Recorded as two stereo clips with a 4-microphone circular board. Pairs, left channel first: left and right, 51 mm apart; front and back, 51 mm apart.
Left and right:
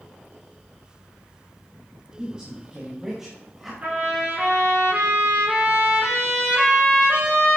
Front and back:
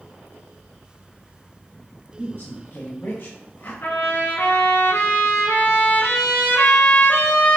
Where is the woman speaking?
25° right, 2.5 m; by 3.7 s straight ahead, 1.6 m.